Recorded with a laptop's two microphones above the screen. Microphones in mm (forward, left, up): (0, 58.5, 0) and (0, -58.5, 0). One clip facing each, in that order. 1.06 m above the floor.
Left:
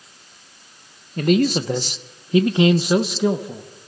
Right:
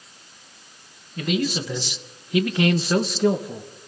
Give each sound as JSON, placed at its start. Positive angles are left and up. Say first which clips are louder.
{"t": 1.2, "sound": "a man speaking", "louder": "left 7 dB", "side_deg": 45, "distance_m": 1.1}